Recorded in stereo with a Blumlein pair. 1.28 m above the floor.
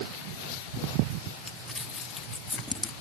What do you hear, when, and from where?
1.5 s crumpling: 15° left